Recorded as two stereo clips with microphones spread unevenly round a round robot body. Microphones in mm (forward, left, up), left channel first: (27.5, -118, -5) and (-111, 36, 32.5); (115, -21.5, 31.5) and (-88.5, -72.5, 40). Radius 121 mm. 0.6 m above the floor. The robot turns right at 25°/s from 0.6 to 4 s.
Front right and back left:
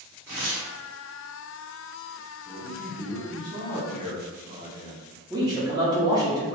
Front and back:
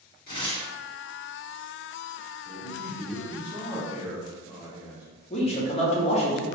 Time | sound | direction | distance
0.3 | tearing paper | 40° left | 1.6 m
2.5 | a man speaking | 85° left | 1.5 m
5.3 | a man speaking | 55° left | 0.8 m